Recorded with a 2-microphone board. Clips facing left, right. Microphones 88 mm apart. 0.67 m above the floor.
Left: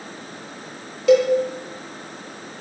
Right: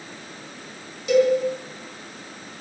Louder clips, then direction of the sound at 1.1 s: Left 3 dB; 80° left.